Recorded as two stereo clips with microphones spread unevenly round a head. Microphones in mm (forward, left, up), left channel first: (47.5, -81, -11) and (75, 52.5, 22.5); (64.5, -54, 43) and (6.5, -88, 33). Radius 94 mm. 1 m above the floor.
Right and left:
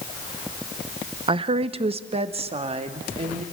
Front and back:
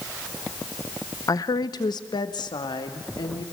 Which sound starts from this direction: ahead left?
A woman speaking, at 1.3 s.